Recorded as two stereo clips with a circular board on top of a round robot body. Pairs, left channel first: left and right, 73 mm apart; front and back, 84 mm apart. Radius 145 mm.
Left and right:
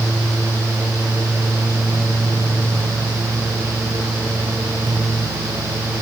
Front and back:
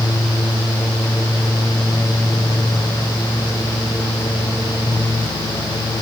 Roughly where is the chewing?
I don't hear chewing.